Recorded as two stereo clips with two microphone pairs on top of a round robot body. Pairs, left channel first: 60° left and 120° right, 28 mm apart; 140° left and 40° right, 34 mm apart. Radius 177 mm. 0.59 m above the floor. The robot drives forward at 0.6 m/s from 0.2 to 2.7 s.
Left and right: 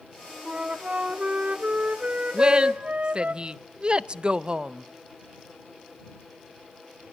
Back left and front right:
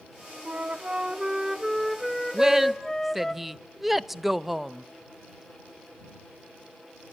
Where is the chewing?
I don't hear chewing.